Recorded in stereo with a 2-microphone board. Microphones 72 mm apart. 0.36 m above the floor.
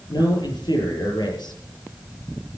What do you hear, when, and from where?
0.1 s a man speaking: 80° left, 7 m